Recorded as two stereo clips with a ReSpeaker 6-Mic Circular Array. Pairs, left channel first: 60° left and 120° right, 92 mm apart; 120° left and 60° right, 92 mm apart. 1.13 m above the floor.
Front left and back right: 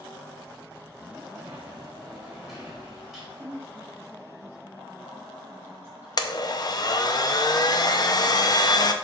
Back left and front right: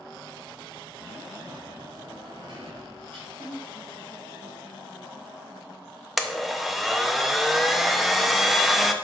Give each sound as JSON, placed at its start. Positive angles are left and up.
{"t": 1.4, "sound": "a sliding door", "azimuth_deg": -35, "distance_m": 3.0}
{"t": 3.4, "sound": "a woman speaking", "azimuth_deg": 175, "distance_m": 1.7}
{"t": 6.2, "sound": "a blender", "azimuth_deg": 30, "distance_m": 0.6}